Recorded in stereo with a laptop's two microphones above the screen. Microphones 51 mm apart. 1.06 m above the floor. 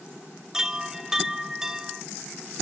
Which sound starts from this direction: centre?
A chime, at 0.5 s.